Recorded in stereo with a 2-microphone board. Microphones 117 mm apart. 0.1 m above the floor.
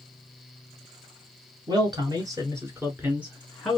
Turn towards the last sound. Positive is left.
turn(degrees=0)  # may be behind; listen again after turning